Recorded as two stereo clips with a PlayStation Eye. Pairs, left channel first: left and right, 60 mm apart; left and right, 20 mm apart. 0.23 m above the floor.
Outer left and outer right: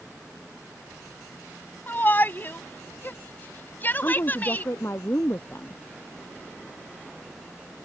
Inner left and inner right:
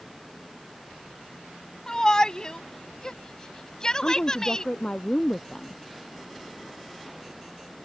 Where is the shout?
35° left (ahead or behind); by 4.7 s 30° left (ahead or behind).